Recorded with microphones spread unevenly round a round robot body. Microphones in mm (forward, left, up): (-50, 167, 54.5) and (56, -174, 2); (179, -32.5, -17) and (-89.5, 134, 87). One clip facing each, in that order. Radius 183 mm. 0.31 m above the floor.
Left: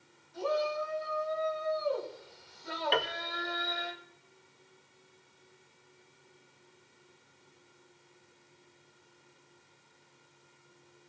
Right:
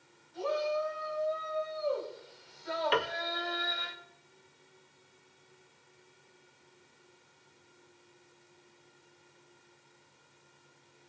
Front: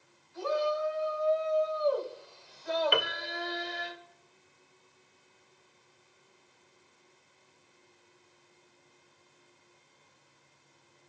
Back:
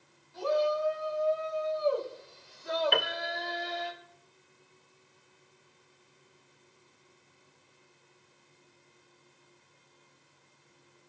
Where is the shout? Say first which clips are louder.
Even, back 2 dB; 100° left, 4.5 m; by 3.9 s 5° left, 2 m.